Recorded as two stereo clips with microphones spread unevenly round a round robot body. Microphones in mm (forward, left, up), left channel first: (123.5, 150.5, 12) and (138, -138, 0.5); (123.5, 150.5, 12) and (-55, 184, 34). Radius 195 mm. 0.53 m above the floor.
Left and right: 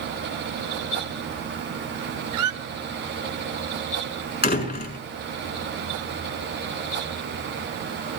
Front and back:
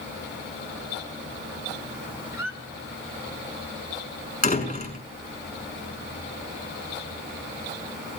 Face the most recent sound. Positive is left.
turn(degrees=40)